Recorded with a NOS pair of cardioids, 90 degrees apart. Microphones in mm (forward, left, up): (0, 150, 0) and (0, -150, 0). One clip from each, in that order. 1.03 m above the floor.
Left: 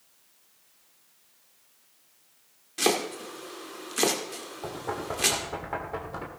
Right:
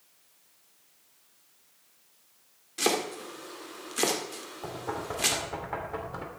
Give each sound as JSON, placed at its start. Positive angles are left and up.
{"t": 2.8, "sound": "chopping", "azimuth_deg": 10, "distance_m": 2.0}
{"t": 4.6, "sound": "knocking", "azimuth_deg": 5, "distance_m": 3.0}